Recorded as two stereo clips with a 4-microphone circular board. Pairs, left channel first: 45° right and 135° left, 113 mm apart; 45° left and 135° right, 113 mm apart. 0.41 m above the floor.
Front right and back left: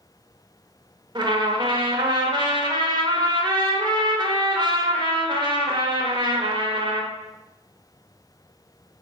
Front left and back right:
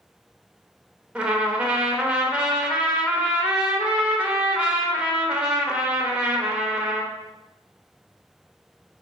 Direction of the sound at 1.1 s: 145° left.